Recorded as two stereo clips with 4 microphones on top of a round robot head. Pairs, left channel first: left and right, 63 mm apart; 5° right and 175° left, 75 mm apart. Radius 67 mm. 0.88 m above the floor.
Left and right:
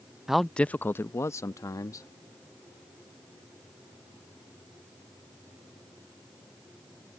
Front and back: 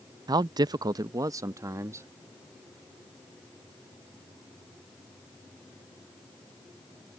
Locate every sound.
0.3 s a man speaking: 170° right; by 2.1 s 120° left